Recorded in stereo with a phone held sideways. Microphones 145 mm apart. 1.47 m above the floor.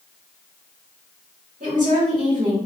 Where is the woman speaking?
75° right (ahead or behind), 1.4 m.